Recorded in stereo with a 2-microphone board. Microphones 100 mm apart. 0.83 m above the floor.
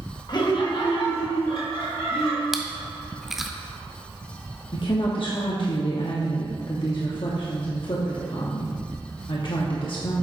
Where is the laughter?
45° left (ahead or behind), 1.2 m; by 2.4 s 70° left (ahead or behind), 2.5 m.